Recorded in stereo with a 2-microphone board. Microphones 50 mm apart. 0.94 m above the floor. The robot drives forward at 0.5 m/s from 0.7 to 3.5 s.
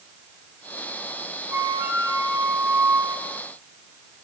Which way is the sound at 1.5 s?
55° right (ahead or behind).